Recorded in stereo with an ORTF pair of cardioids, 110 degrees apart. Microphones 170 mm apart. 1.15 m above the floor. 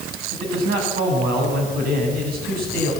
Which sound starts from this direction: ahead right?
A man speaking, at 0.3 s.